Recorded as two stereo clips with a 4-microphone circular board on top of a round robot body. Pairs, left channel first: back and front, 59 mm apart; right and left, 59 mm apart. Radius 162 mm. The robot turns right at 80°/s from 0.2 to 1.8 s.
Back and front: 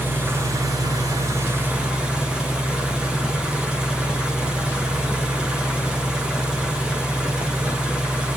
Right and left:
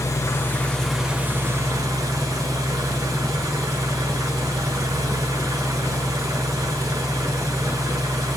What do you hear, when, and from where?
0.0 s an engine running: 55° right, 1.5 m; by 8.4 s 75° left, 1.5 m